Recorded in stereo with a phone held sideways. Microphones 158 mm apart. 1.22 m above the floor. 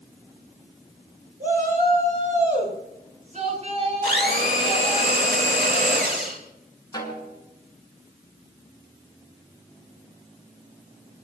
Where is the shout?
60° right (ahead or behind), 8 m; by 5.0 s 35° right (ahead or behind), 10.5 m.